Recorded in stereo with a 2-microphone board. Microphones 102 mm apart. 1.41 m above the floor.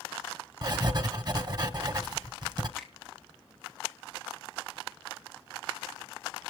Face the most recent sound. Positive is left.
turn(degrees=0)  # may be behind; listen again after turning